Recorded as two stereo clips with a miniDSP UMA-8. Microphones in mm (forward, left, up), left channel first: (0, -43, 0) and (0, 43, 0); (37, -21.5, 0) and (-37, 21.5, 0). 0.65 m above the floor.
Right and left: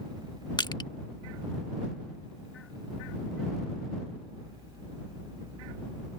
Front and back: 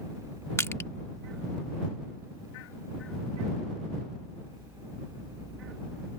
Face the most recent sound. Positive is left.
turn(degrees=-85)